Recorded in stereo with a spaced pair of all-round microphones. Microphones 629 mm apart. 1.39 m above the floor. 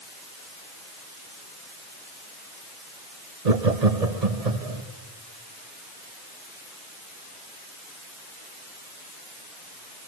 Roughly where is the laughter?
Right.